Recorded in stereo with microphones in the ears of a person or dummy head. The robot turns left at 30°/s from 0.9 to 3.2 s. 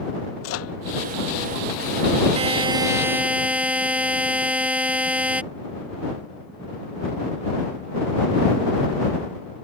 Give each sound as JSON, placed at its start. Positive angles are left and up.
{"t": 0.4, "sound": "a microwave", "side_deg": 80}
{"t": 2.4, "sound": "a buzzer", "side_deg": -30}